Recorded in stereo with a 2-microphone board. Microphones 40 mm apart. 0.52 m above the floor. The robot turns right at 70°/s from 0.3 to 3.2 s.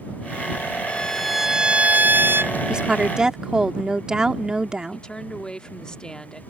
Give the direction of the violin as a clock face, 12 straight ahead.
7 o'clock.